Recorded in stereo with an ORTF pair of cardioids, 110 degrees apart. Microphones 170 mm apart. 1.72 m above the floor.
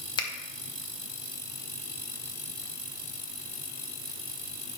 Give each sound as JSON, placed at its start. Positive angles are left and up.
{"t": 0.2, "sound": "a finger snap", "azimuth_deg": 25, "distance_m": 1.3}